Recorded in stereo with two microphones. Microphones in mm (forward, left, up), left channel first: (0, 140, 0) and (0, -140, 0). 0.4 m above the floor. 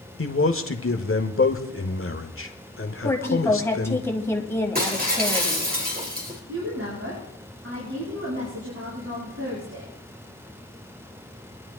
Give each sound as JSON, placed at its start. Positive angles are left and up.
{"t": 0.2, "sound": "a man speaking", "side_deg": 50, "distance_m": 1.1}
{"t": 3.0, "sound": "a woman speaking", "side_deg": 10, "distance_m": 2.0}
{"t": 4.8, "sound": "breaking glass", "side_deg": -30, "distance_m": 3.0}
{"t": 6.5, "sound": "a woman speaking", "side_deg": -55, "distance_m": 5.5}